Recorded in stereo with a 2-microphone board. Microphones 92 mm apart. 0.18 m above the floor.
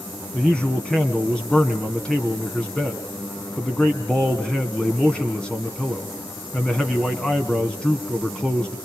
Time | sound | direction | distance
0.3 | a man speaking | 10° left (ahead or behind) | 1.3 m